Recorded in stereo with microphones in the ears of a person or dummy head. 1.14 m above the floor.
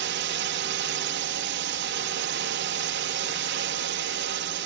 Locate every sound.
0.0 s a drone: 55° right (ahead or behind)